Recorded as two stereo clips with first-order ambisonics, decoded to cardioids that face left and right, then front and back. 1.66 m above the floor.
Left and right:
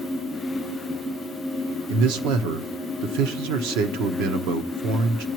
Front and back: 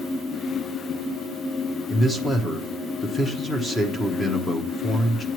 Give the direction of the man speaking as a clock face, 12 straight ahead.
3 o'clock.